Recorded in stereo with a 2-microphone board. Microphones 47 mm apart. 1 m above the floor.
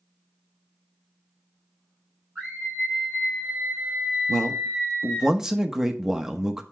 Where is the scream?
5° right (ahead or behind), 3 m.